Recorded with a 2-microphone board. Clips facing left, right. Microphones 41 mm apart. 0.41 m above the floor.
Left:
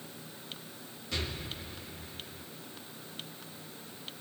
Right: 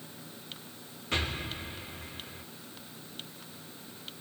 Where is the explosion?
40° right (ahead or behind), 4.5 m.